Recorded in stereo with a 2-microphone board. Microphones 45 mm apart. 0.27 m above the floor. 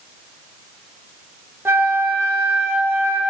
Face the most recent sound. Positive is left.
turn(degrees=-60)  # may be behind; listen again after turning